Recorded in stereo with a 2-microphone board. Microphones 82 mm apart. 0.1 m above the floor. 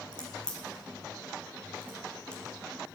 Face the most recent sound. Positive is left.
turn(degrees=15)  # may be behind; listen again after turning